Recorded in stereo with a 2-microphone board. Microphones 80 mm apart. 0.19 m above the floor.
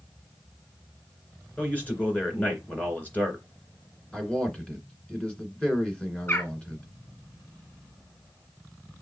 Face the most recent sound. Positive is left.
turn(degrees=35)  # may be behind; listen again after turning